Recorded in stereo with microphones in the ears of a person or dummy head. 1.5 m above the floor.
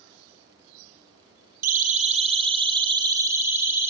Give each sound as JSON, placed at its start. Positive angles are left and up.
{"t": 1.6, "sound": "a siren", "side_deg": -50, "distance_m": 2.0}